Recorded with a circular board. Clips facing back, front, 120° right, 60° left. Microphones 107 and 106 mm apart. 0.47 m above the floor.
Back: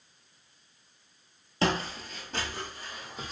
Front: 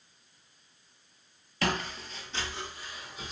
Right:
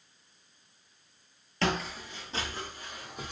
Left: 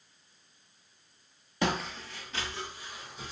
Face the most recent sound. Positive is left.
turn(degrees=-135)